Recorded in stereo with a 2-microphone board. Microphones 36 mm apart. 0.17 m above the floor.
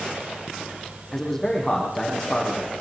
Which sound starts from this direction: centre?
A man speaking, at 1.1 s.